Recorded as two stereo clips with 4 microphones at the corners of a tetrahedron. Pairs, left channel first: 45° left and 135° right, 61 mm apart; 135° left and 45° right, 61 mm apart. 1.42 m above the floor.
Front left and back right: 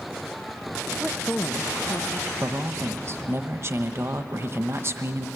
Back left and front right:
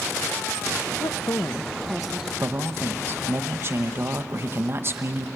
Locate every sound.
1.0 s a woman speaking: 150° left, 0.7 m; by 2.3 s 30° left, 1.1 m
2.4 s a man speaking: 90° right, 1.0 m